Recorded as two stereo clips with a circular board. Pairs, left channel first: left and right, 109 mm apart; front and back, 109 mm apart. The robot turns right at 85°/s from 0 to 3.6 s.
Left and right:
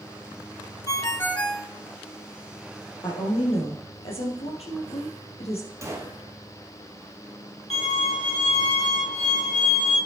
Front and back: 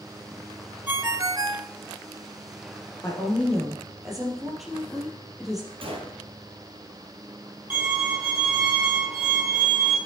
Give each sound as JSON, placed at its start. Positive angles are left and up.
{"t": 0.9, "sound": "a ringtone", "azimuth_deg": 115, "distance_m": 0.5}
{"t": 3.0, "sound": "a woman speaking", "azimuth_deg": 45, "distance_m": 3.0}
{"t": 5.8, "sound": "a gunshot", "azimuth_deg": -150, "distance_m": 2.0}
{"t": 7.7, "sound": "a violin", "azimuth_deg": 105, "distance_m": 6.0}